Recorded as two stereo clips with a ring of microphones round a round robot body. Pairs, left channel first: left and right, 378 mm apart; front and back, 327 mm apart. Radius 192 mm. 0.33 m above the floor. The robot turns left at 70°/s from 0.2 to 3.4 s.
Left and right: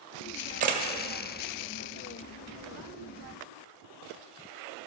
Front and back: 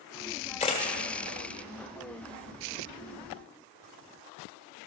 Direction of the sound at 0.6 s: 45° right.